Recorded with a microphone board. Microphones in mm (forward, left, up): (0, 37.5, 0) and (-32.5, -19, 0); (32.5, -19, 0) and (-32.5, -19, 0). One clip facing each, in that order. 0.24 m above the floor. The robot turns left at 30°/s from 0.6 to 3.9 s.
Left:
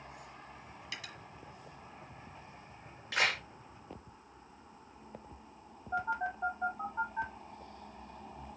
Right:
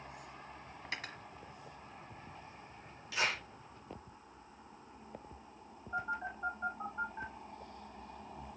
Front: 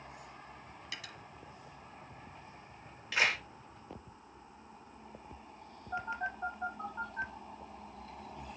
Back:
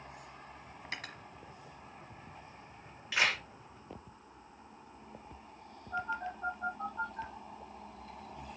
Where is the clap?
90° left, 3 m; by 3.4 s 85° left, 3 m.